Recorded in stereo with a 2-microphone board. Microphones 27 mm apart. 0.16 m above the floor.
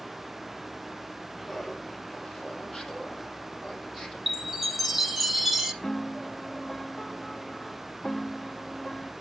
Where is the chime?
10° right (ahead or behind), 1.0 m.